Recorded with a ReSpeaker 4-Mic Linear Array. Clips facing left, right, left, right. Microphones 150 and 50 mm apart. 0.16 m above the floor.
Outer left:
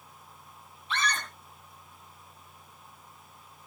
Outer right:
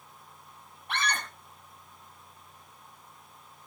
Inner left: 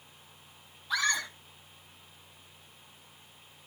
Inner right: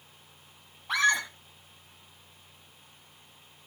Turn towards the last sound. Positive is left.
turn(degrees=-70)  # may be behind; listen again after turning